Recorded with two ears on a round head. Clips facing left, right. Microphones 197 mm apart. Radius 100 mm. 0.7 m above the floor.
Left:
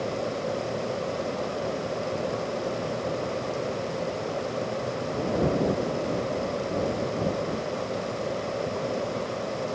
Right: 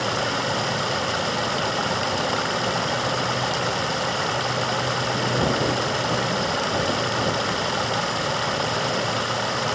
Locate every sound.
0.0 s running water: 85° right